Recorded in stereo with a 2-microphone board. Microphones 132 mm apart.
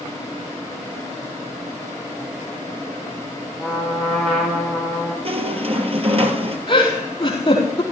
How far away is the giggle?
About 4.5 m.